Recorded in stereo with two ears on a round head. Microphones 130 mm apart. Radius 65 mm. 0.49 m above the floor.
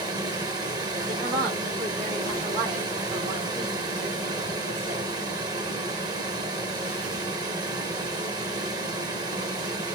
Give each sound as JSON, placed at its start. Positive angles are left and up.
{"t": 0.0, "sound": "running water", "side_deg": -30, "distance_m": 1.8}
{"t": 1.1, "sound": "a woman speaking", "side_deg": -45, "distance_m": 5.5}